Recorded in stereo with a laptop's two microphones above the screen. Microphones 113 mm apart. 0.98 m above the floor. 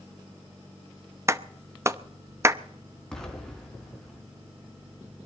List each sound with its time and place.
1.3 s a clap: 25° right (ahead or behind), 0.6 m
3.1 s an explosion: 5° left (ahead or behind), 3.5 m